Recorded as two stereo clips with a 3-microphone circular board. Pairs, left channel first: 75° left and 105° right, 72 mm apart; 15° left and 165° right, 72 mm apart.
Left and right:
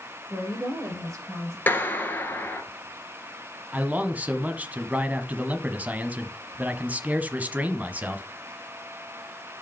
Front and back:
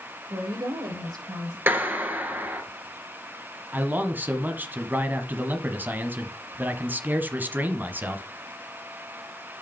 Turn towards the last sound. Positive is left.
turn(degrees=-150)